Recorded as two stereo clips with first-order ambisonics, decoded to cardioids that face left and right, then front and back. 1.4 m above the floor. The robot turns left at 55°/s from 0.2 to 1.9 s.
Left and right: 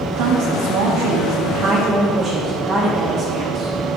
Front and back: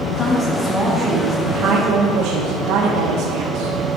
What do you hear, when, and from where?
0.1 s a woman speaking: 65° right, 0.9 m; by 4.0 s 160° right, 0.9 m